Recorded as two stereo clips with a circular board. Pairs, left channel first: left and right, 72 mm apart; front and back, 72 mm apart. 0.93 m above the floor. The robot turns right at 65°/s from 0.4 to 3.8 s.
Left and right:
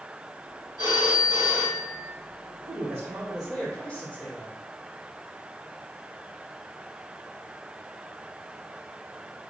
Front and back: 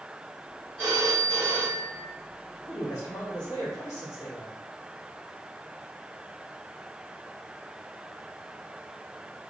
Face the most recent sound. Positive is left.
turn(degrees=35)